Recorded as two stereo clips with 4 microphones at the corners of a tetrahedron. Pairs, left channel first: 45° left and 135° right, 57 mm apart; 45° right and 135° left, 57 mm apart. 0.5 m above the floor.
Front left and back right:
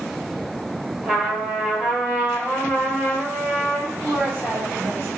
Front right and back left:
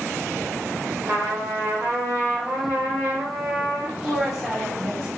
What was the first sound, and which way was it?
A trumpet, 155° left.